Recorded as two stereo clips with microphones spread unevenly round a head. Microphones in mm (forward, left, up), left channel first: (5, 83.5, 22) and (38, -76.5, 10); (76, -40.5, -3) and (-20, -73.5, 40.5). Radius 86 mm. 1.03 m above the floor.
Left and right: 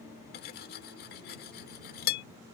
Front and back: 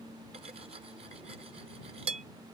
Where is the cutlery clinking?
140° left.